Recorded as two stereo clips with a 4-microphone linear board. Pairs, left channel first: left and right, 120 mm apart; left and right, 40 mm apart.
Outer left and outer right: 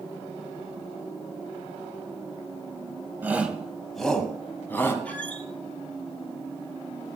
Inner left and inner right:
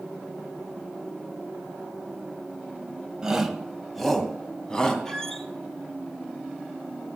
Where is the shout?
15° right (ahead or behind), 1.8 m; by 5.0 s 20° left (ahead or behind), 3 m.